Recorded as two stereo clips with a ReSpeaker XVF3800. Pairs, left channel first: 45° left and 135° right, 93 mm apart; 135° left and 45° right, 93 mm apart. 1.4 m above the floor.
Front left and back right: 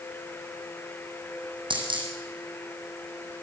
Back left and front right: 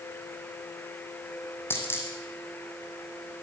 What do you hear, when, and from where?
1.7 s a dropped coin: 160° right, 4 m